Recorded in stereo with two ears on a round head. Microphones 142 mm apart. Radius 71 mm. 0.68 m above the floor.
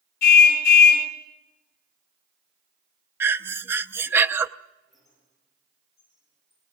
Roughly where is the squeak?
Centre.